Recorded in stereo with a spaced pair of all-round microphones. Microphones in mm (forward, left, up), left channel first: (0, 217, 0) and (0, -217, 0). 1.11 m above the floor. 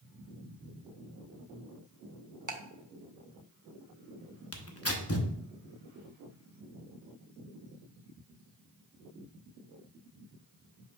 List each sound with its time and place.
2.5 s ticking: 40° right (ahead or behind), 0.9 m
4.5 s tearing paper: 30° left (ahead or behind), 0.9 m